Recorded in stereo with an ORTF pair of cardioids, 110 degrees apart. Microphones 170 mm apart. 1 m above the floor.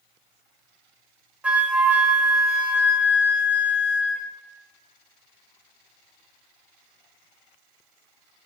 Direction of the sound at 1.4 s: 10° right.